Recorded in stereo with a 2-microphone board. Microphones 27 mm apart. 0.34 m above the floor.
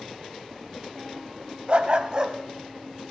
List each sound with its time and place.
1.7 s a dog barking: 45° right (ahead or behind), 0.7 m; by 3.1 s 20° right (ahead or behind), 1.3 m